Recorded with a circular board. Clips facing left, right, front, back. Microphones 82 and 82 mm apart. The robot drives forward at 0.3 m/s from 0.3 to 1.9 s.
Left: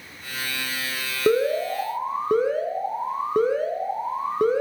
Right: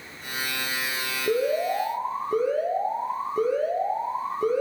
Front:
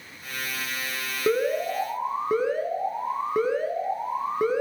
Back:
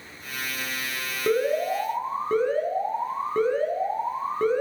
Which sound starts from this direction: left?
An alarm, at 1.3 s.